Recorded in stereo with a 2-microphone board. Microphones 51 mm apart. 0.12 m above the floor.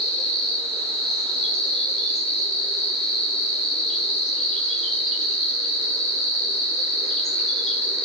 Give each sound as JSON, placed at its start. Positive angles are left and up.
{"t": 0.0, "sound": "an insect", "side_deg": 0, "distance_m": 3.5}